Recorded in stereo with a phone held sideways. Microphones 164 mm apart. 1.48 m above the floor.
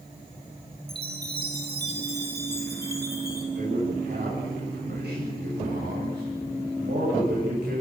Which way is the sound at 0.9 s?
75° right (ahead or behind).